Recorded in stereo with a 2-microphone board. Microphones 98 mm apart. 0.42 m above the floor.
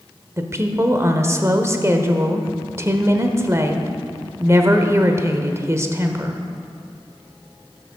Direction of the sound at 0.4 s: 30° right (ahead or behind).